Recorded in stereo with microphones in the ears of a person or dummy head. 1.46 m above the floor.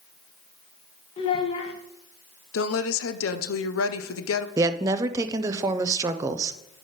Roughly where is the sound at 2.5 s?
Left.